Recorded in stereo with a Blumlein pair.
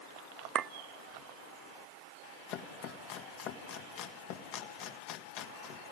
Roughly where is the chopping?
Ahead left.